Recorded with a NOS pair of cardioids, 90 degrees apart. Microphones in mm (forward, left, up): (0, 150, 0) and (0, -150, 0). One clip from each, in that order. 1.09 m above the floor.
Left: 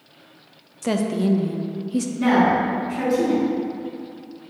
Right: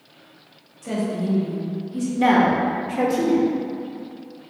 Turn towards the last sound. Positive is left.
turn(degrees=-45)